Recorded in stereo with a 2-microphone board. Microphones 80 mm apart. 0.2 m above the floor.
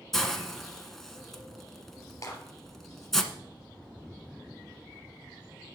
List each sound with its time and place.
0.1 s a hiss: 5° left (ahead or behind), 1.1 m
2.2 s a clap: 45° left (ahead or behind), 3.5 m